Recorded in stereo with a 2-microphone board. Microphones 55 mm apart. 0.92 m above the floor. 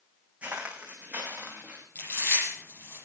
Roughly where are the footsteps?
Right.